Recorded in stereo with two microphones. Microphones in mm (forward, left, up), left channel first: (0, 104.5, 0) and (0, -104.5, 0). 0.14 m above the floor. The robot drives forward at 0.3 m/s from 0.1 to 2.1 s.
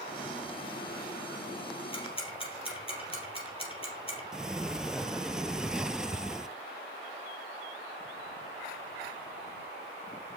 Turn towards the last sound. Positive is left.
turn(degrees=-5)  # may be behind; listen again after turning